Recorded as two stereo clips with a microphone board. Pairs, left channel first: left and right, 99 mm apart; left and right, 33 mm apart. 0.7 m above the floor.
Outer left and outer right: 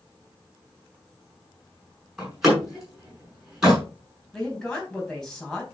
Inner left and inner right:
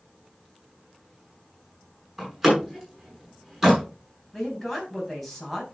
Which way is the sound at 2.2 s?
5° right (ahead or behind).